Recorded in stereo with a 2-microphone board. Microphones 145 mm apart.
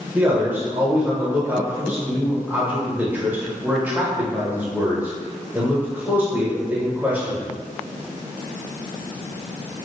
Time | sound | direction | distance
0.1 | a man speaking | 15° right (ahead or behind) | 1.0 m